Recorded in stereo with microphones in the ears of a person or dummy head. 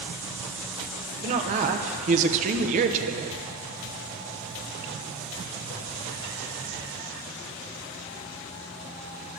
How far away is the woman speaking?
About 1.0 m.